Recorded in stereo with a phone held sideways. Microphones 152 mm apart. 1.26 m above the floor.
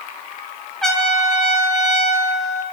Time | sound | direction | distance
0.8 | a trumpet | centre (ahead or behind) | 2.5 m